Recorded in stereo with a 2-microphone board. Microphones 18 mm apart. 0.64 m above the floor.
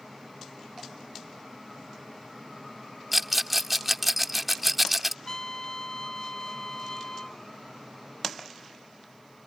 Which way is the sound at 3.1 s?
5° right (ahead or behind).